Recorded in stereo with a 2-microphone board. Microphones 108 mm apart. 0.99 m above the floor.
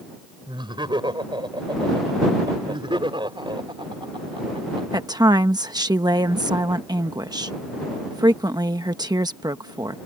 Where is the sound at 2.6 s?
50° right (ahead or behind).